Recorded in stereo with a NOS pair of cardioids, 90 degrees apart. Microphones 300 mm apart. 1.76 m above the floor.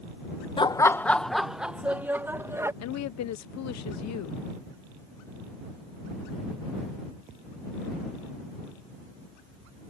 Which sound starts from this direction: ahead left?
A woman speaking, at 2.8 s.